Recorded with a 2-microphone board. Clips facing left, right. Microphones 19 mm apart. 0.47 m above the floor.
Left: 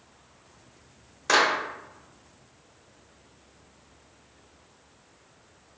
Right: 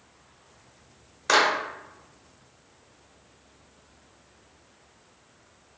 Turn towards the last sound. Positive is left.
turn(degrees=-10)  # may be behind; listen again after turning